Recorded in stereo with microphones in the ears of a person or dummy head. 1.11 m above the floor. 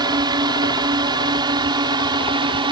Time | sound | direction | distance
0.0 | a drone | 20° right (ahead or behind) | ?